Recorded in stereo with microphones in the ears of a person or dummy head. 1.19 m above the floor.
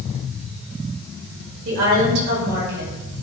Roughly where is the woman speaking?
Right.